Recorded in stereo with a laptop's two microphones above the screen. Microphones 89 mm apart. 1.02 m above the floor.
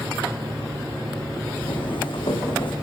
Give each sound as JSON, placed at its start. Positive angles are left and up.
{"t": 1.6, "sound": "footsteps", "side_deg": 65, "distance_m": 3.5}